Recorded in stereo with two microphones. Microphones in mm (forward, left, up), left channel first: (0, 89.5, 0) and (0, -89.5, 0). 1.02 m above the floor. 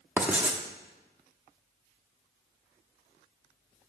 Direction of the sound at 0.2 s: 10° right (ahead or behind).